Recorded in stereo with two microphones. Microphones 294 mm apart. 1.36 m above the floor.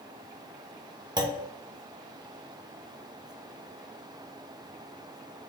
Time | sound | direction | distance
1.2 | a clunk | 15° right (ahead or behind) | 0.6 m